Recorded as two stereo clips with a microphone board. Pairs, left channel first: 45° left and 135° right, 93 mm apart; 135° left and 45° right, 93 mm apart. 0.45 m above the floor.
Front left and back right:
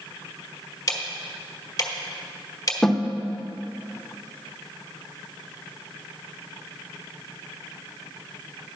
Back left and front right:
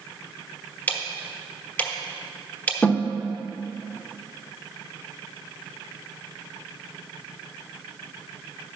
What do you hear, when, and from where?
0.9 s ticking: 70° left, 1.0 m
2.8 s a snare drum: 120° left, 0.8 m